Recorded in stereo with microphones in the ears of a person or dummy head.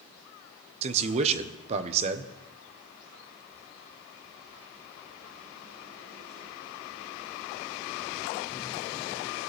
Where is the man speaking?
40° right (ahead or behind), 1.0 m.